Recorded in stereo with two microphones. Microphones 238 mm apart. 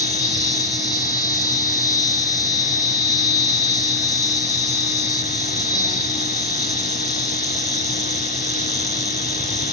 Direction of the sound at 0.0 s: 15° left (ahead or behind).